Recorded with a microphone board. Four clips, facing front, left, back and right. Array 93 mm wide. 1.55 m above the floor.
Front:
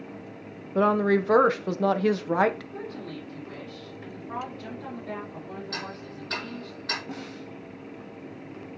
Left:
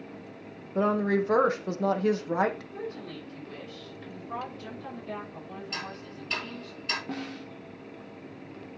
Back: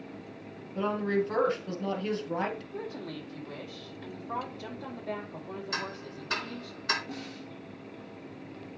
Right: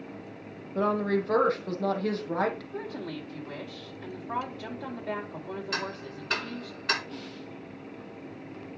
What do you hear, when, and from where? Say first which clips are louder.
0.8 s a woman speaking: left 1 dB, front 7 dB; 15° left, 1.0 m
2.7 s a woman speaking: right 2 dB, front 1 dB; 105° right, 5 m
5.7 s ticking: right 4 dB, even; 100° right, 6 m
7.1 s a snare drum: left 4 dB, front 3 dB; 65° left, 1.3 m